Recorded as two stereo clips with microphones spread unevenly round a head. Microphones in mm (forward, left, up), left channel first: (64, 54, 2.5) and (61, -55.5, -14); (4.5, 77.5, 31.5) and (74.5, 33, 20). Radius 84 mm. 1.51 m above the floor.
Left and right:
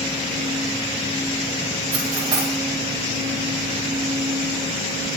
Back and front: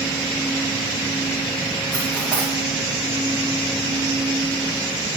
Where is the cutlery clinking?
125° right, 2 m.